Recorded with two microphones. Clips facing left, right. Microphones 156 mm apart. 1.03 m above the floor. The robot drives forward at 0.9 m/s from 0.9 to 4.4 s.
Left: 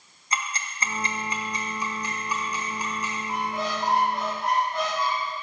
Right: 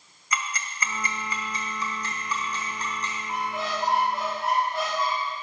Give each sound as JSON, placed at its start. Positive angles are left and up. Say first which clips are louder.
{"t": 0.3, "sound": "ticking", "louder": "even", "side_deg": 25, "distance_m": 1.0}
{"t": 3.3, "sound": "a squeak", "louder": "left 1 dB", "side_deg": -5, "distance_m": 3.0}